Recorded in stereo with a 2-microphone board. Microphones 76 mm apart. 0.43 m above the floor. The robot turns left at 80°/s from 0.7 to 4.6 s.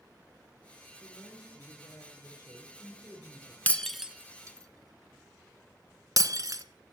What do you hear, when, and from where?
1.0 s a woman speaking: 155° left, 6 m; by 3.6 s 50° right, 6 m
3.7 s breaking glass: 20° left (ahead or behind), 1.1 m; by 6.6 s 55° right (ahead or behind), 1.1 m